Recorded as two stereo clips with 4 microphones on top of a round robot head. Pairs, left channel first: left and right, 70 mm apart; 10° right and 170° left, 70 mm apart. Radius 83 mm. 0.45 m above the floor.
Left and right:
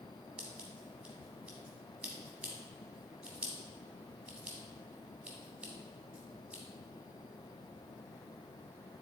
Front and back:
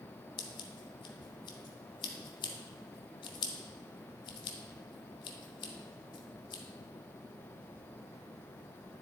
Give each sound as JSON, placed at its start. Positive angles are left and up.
{"t": 0.4, "sound": "scissors", "azimuth_deg": -15, "distance_m": 0.7}